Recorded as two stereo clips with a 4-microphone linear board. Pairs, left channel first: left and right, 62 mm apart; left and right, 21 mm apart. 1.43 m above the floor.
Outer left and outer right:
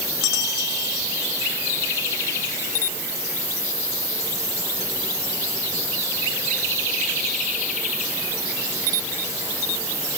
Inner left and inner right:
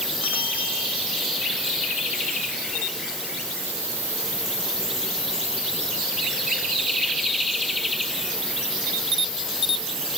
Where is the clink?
No clink in this recording.